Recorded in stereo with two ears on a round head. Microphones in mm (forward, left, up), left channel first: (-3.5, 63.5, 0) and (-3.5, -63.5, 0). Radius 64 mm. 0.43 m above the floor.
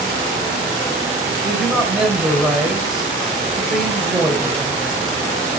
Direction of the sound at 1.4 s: Centre (ahead or behind).